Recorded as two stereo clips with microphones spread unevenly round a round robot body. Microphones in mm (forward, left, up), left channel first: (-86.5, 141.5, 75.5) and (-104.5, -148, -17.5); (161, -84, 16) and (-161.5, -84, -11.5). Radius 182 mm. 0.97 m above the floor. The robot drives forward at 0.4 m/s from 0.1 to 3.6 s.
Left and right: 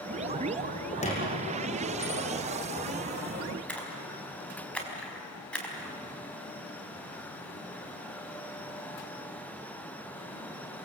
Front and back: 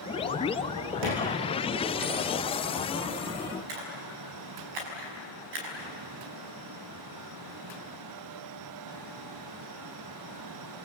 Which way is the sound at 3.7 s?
170° left.